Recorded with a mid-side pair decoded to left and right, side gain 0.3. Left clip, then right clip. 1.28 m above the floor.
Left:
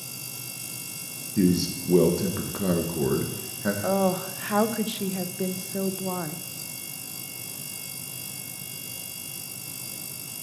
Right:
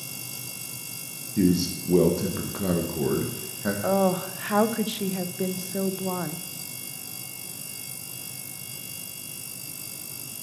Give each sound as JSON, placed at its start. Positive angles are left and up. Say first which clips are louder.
{"t": 1.4, "sound": "a man speaking", "louder": "even", "azimuth_deg": 5, "distance_m": 1.6}
{"t": 3.8, "sound": "a woman speaking", "louder": "right 2 dB", "azimuth_deg": -15, "distance_m": 0.8}